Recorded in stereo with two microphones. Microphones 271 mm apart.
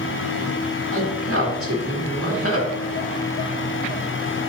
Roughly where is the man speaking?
Right.